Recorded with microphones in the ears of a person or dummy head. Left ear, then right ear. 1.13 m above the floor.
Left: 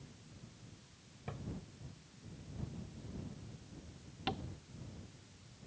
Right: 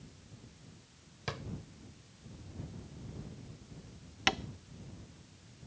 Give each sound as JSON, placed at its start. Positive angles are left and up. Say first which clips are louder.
{"t": 1.3, "sound": "a drawer", "louder": "right 9 dB", "side_deg": -65}
{"t": 4.3, "sound": "tapping", "louder": "right 10 dB", "side_deg": -65}